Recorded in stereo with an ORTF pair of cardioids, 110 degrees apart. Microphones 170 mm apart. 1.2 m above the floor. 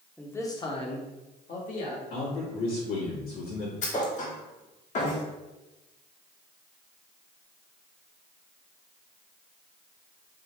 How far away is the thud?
About 1.4 m.